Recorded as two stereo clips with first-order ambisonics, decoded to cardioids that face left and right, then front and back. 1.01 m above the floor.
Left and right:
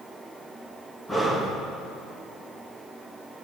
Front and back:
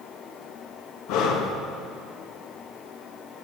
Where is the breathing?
5° left, 1.2 m.